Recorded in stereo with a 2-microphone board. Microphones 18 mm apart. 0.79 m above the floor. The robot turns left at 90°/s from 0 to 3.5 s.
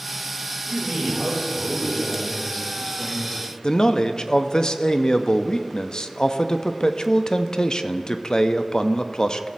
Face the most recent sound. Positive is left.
turn(degrees=40)  # may be behind; listen again after turning